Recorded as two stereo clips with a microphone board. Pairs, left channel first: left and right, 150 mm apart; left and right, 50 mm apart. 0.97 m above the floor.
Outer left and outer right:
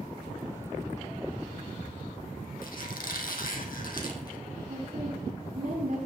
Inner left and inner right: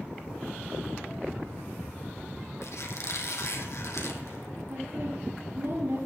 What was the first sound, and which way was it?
A squeak, 70° left (ahead or behind).